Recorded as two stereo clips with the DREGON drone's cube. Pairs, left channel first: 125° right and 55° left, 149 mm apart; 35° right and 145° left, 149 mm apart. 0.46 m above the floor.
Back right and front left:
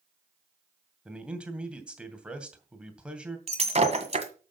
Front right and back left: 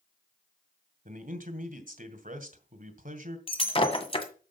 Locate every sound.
1.1 s a man speaking: 140° left, 2 m
3.5 s breaking glass: 15° left, 1.8 m